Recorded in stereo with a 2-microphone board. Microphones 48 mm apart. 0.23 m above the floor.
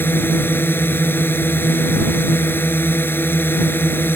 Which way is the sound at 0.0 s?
50° left (ahead or behind).